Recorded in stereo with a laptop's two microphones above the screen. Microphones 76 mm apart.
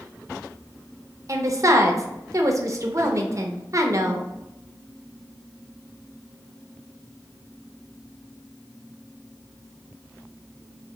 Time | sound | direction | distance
1.3 | a woman speaking | 45° right (ahead or behind) | 0.8 m